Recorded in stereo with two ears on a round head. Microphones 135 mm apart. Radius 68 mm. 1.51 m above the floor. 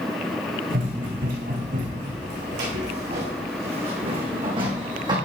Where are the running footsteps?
65° right (ahead or behind), 4 m; by 5.2 s 30° right (ahead or behind), 3.5 m.